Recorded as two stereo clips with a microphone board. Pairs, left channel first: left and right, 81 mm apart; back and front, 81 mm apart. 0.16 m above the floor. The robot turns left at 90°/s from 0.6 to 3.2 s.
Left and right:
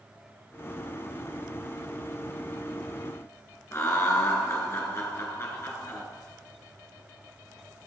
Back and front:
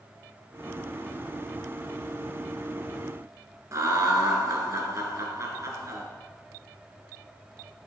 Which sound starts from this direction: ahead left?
Laughter, at 3.7 s.